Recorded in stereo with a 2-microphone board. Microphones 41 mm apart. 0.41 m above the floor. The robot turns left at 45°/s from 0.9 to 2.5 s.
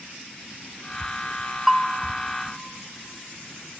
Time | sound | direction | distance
1.7 | a bell | 5° right (ahead or behind) | 0.5 m